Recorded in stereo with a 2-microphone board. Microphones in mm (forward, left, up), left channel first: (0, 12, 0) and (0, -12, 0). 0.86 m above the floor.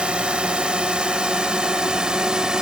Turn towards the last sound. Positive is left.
turn(degrees=-35)  # may be behind; listen again after turning